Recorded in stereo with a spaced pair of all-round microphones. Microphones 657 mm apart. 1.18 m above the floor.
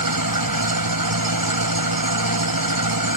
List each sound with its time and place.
0.0 s an engine running: 30° right (ahead or behind)